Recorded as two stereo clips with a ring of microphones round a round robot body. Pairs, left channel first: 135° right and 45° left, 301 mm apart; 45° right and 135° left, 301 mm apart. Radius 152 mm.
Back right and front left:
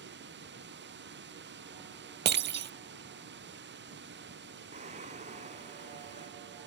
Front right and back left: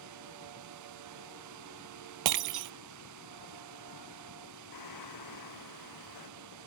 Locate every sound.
0.0 s running water: 100° left
2.2 s breaking glass: 105° left
4.7 s singing: 25° right